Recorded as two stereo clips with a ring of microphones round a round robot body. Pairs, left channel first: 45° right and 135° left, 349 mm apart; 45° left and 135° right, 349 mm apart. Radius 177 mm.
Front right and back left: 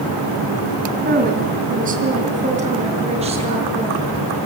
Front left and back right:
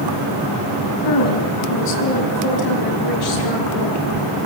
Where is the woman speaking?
75° left, 5.5 m; by 4.0 s 60° left, 9.5 m.